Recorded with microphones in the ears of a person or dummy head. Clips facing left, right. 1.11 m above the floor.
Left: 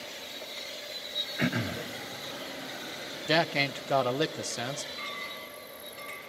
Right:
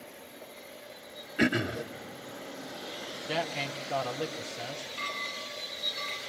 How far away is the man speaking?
About 0.5 m.